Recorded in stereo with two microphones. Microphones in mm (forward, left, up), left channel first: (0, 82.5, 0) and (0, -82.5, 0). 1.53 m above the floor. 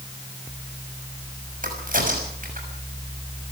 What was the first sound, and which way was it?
A crack, 55° right (ahead or behind).